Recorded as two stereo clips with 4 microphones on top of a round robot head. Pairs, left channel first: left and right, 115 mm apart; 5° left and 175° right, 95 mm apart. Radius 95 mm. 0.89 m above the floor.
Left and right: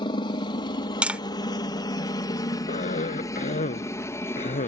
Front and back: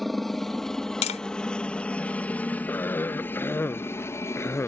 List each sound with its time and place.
0.0 s a helicopter: 90° left; by 4.7 s 35° left
1.0 s tapping: 10° right
2.7 s a cough: 70° left